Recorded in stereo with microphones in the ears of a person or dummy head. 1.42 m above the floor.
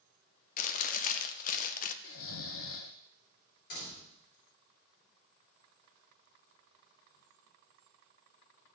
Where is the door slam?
65° left (ahead or behind), 3 m.